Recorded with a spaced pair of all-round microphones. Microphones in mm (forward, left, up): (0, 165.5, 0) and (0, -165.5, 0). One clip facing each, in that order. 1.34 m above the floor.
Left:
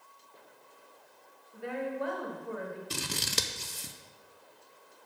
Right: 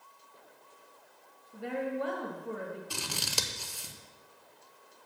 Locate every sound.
1.5 s a woman speaking: 45° right (ahead or behind), 1.5 m
2.9 s scissors: 25° left (ahead or behind), 0.5 m